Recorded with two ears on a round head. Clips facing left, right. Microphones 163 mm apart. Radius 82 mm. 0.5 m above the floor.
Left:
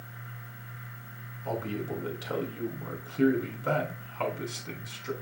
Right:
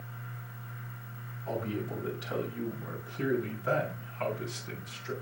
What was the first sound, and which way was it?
A man speaking, 65° left (ahead or behind).